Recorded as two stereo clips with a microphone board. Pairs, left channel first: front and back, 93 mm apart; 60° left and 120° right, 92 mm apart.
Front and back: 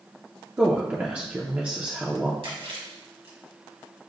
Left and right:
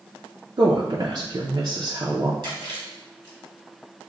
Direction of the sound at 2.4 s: 160° right.